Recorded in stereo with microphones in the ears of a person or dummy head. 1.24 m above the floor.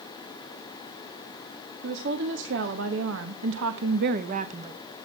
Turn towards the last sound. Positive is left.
turn(degrees=-25)  # may be behind; listen again after turning